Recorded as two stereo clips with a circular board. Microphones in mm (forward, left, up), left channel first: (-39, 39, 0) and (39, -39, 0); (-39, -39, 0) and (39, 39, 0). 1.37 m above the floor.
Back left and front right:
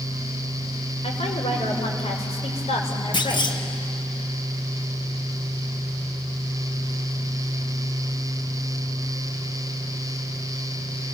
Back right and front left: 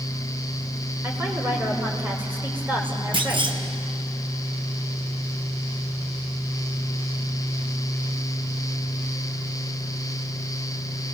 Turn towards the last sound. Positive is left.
turn(degrees=90)